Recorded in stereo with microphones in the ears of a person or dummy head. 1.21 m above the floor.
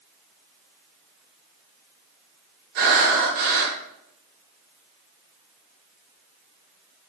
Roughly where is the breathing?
Right.